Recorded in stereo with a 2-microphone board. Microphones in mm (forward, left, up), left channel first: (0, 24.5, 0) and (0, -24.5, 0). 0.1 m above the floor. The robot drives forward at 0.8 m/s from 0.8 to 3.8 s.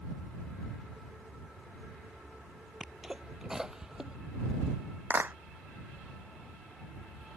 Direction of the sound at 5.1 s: 40° right (ahead or behind).